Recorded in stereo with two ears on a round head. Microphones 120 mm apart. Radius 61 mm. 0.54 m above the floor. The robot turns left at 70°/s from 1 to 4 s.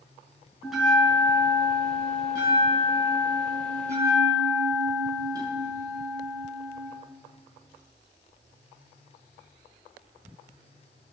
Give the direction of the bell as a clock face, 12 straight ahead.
6 o'clock.